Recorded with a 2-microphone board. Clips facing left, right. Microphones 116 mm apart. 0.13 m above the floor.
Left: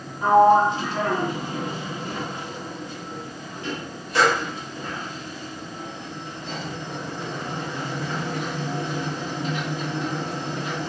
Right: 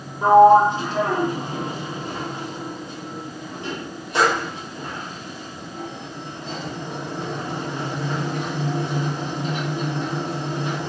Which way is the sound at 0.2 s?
25° right (ahead or behind).